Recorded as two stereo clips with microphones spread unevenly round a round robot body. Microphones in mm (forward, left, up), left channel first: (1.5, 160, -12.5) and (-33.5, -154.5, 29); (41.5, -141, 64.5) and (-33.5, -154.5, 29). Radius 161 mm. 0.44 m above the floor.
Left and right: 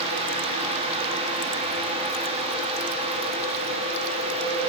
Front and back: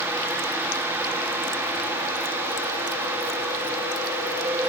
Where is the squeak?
No squeak in this recording.